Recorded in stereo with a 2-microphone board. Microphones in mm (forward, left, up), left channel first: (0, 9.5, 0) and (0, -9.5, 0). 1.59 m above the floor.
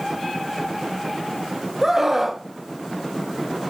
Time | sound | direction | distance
1.8 | a scream | 25° right (ahead or behind) | 1.5 m